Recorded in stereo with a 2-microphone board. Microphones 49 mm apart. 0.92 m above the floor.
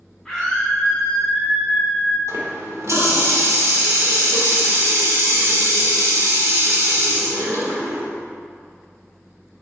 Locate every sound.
0.2 s a scream: 5° left (ahead or behind), 2.5 m; by 2.2 s 20° right (ahead or behind), 2 m
2.3 s a running tap: 75° right (ahead or behind), 1.7 m